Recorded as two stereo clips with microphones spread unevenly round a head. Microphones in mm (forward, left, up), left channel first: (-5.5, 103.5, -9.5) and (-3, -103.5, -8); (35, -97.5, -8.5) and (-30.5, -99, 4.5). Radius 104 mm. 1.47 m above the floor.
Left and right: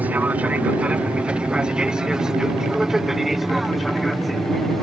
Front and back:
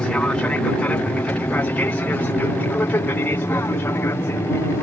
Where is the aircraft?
20° right; by 4.8 s 5° left.